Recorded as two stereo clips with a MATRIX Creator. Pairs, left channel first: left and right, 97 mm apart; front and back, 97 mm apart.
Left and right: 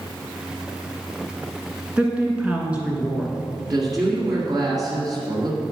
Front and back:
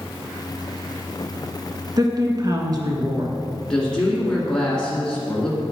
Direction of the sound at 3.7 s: 80° right.